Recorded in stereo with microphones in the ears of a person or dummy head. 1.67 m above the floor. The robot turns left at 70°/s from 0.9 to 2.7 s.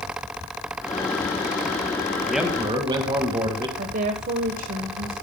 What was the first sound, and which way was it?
A man speaking, 5° left.